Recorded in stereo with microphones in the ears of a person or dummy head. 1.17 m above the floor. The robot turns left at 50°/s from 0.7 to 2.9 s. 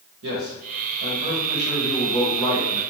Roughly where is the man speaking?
Right.